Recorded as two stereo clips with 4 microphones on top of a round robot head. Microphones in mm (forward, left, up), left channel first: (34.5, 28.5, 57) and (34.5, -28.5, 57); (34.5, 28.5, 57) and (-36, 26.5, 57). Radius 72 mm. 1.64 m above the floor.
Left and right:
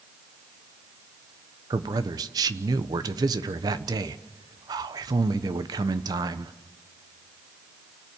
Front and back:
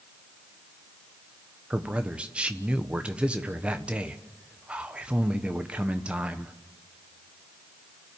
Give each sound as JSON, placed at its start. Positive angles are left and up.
{"t": 1.7, "sound": "a man speaking", "azimuth_deg": -100, "distance_m": 1.1}